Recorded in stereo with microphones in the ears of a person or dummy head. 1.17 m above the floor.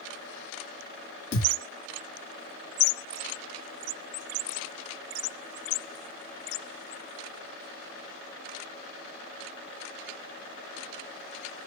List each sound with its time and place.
1.3 s a thud: 65° left (ahead or behind), 2 m